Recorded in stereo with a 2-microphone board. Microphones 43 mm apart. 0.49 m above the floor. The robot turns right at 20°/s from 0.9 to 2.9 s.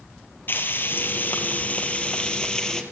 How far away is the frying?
About 2.5 m.